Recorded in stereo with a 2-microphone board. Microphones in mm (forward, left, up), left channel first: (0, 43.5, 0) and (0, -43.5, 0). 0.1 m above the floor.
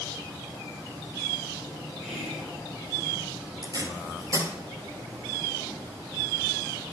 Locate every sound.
2.0 s whispering: centre (ahead or behind), 4 m
3.6 s tape being pulled: 45° right (ahead or behind), 1.6 m